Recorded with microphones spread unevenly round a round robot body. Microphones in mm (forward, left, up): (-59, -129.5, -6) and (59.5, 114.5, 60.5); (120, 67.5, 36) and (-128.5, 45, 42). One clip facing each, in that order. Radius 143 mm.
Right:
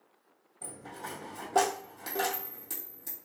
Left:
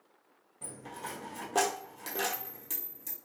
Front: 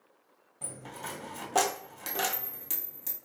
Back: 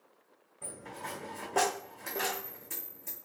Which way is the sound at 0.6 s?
15° right.